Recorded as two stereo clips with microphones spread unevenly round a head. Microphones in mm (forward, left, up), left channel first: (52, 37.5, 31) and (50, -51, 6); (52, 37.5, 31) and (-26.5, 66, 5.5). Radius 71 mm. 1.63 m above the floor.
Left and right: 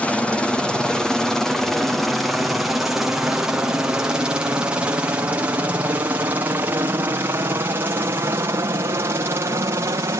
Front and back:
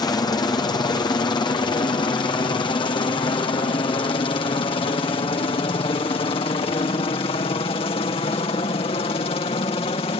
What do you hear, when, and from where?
0.0 s a helicopter: 5° right; by 10.2 s 45° right